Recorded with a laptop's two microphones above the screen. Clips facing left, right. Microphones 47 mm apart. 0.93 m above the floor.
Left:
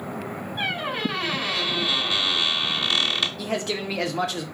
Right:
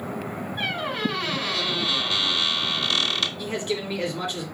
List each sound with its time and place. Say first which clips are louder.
0.6 s a squeak: left 1 dB; 15° left (ahead or behind), 1.1 m
3.4 s a man speaking: left 1 dB; 70° left (ahead or behind), 1.0 m